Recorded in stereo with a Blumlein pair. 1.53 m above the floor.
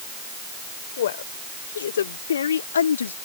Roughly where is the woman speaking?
Ahead left.